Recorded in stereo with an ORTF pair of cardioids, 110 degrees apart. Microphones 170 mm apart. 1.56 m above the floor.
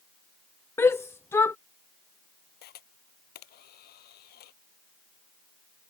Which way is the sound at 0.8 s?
15° left.